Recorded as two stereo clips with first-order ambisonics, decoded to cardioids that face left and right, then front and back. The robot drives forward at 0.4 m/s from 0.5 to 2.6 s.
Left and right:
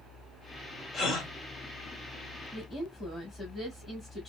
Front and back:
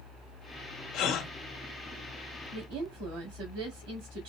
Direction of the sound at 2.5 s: 170° left.